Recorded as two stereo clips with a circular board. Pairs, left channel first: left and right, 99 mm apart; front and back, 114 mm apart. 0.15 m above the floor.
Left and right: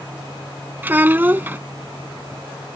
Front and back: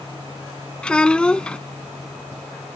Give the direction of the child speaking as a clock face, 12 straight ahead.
2 o'clock.